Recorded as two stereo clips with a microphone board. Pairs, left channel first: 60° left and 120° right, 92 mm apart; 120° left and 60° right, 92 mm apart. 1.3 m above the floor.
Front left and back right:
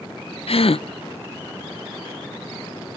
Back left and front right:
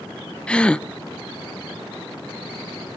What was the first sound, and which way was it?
A gasp, 40° left.